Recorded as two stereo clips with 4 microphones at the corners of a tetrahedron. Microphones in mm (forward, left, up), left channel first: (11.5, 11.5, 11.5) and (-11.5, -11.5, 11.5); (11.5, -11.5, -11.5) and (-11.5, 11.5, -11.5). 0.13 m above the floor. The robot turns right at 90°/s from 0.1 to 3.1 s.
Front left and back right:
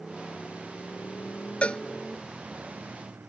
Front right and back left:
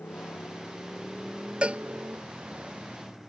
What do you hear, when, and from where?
0.0 s a motorcycle: 50° right; by 3.3 s 135° right
1.6 s a cowbell: 85° left; by 1.8 s 105° left